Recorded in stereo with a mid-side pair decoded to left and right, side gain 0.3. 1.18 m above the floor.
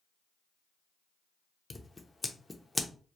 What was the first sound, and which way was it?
Scissors, 30° left.